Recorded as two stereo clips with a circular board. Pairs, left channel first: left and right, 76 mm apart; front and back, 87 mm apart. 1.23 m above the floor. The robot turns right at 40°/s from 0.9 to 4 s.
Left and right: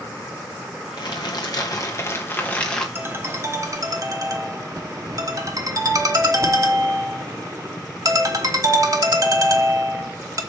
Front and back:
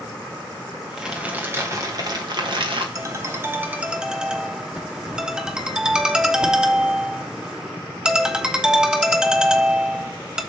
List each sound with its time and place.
1.0 s crumpling: 95° left, 1.5 m; by 2.9 s 170° left, 1.5 m
3.0 s a ringtone: 145° right, 0.9 m; by 10.4 s 100° right, 0.9 m